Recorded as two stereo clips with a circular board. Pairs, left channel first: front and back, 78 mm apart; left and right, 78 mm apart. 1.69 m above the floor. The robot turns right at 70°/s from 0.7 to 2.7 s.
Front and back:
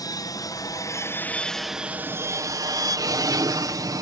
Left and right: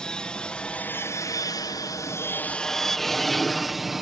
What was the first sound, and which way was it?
An aircraft, 15° left.